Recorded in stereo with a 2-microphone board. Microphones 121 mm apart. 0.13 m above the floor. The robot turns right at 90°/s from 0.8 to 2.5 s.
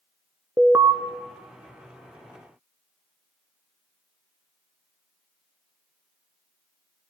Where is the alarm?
25° right (ahead or behind), 1.0 m; by 0.9 s 30° right (ahead or behind), 1.0 m.